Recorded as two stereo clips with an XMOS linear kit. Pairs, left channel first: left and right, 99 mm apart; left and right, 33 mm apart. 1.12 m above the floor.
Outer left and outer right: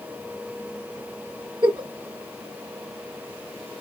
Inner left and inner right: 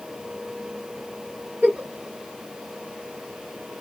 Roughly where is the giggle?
Right.